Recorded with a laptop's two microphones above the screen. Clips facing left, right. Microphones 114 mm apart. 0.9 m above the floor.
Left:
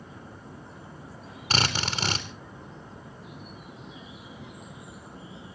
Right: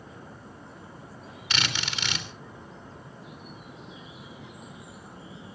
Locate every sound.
1.5 s a drill: 40° left (ahead or behind), 3 m